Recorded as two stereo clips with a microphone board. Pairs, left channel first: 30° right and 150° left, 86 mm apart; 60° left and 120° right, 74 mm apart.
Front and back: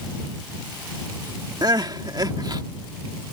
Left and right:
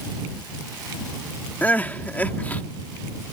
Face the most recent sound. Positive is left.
turn(degrees=125)